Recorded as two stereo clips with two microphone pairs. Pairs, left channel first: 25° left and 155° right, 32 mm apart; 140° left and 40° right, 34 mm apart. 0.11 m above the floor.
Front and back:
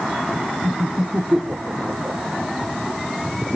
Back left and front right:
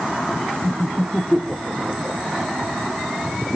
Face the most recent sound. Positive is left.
turn(degrees=-175)